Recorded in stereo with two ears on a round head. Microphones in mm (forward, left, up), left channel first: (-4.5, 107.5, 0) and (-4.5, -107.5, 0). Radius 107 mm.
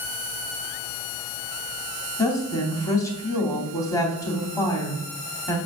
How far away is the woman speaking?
About 2.5 m.